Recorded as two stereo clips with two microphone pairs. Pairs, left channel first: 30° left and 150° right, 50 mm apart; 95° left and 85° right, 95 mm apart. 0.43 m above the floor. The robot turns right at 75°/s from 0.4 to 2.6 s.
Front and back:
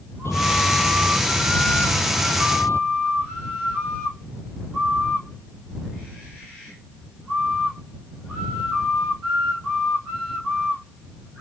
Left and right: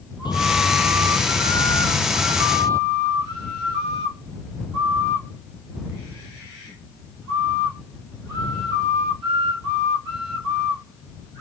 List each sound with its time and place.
0.2 s a bird: 60° left; by 2.8 s 135° right